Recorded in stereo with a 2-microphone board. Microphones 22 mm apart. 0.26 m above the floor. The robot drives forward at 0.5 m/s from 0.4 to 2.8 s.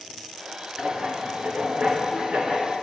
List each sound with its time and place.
0.8 s writing: 65° right (ahead or behind), 2.5 m; by 2.9 s 70° right (ahead or behind), 2.5 m